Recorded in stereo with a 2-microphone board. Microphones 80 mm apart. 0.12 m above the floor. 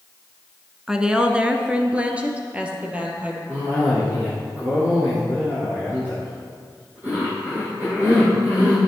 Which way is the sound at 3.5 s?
20° right (ahead or behind).